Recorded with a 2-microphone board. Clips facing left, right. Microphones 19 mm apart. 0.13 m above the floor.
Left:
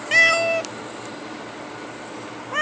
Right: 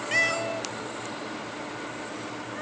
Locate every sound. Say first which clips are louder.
0.1 s a cat meowing: left 10 dB; 30° left (ahead or behind); by 2.6 s 60° left (ahead or behind)